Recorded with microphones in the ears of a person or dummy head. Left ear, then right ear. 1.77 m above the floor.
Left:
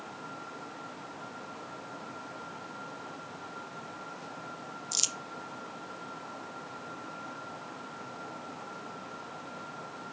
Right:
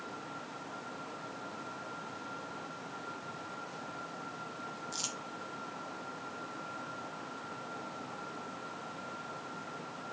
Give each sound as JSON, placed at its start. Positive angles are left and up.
{"t": 4.9, "sound": "crumpling", "side_deg": 65, "distance_m": 1.0}